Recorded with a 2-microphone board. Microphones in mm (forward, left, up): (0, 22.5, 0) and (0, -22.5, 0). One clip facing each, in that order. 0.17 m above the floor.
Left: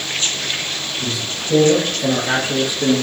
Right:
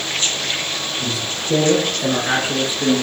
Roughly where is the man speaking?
Right.